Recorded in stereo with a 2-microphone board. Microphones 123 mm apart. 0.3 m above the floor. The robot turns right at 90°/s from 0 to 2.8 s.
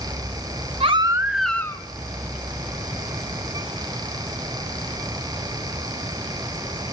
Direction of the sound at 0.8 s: 55° right.